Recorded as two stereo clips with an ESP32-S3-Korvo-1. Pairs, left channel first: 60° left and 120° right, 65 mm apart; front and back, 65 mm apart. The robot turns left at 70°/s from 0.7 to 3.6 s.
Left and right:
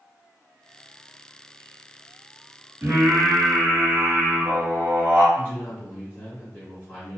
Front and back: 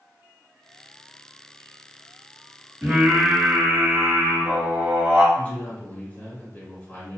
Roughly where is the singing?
Right.